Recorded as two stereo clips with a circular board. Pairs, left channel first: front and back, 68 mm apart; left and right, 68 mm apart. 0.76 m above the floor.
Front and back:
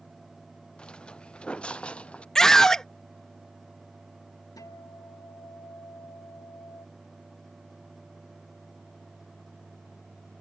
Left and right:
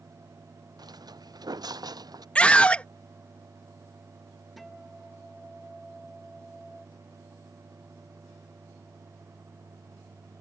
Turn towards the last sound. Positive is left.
turn(degrees=0)